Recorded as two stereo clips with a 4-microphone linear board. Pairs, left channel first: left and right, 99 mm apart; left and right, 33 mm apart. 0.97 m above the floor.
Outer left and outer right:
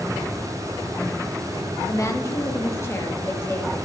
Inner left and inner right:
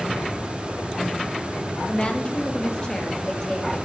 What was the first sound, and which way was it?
A woman speaking, 30° left (ahead or behind).